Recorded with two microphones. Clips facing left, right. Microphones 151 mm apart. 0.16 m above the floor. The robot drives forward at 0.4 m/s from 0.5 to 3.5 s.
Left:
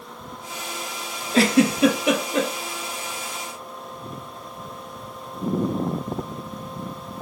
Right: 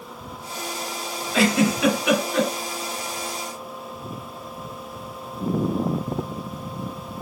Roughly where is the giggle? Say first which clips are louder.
Left 2 dB; left.